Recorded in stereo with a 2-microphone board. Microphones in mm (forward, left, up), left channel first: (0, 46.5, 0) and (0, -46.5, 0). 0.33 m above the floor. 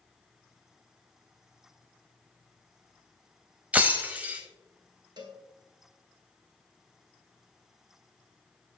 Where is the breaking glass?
15° right (ahead or behind), 1.1 m.